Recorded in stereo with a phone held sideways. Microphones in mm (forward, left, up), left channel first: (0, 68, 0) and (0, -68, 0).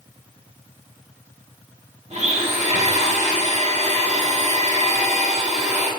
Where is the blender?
50° right (ahead or behind), 1.8 m.